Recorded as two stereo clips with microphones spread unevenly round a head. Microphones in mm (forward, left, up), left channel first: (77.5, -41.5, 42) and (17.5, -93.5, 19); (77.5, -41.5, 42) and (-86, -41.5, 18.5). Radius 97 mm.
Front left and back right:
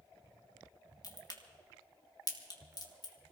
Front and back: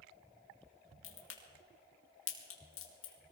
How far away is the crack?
About 2 m.